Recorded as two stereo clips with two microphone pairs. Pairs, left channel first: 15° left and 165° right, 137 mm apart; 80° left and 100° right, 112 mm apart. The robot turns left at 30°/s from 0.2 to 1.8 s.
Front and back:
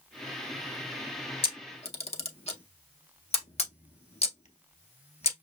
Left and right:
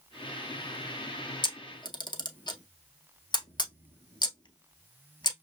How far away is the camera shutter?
About 0.7 m.